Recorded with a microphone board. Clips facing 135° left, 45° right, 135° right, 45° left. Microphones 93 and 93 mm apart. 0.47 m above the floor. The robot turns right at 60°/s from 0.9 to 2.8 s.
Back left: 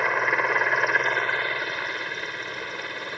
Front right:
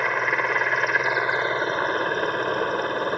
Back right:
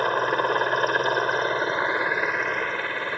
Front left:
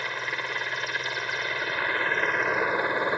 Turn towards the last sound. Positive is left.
turn(degrees=-20)